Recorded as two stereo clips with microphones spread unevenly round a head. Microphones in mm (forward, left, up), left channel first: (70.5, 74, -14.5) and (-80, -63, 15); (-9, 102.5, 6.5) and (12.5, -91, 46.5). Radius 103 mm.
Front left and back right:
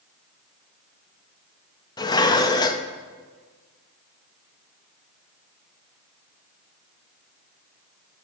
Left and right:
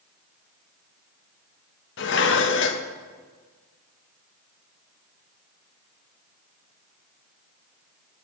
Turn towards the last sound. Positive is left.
turn(degrees=115)